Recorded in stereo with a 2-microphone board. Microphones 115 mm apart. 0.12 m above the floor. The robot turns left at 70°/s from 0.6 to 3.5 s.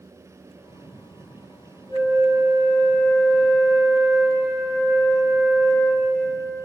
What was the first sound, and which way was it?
A flute, 105° left.